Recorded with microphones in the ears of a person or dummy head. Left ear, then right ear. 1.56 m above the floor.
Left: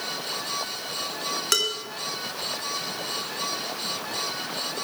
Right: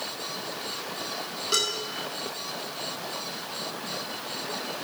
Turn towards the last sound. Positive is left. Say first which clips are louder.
# left 2 dB
turn(degrees=45)  # may be behind; listen again after turning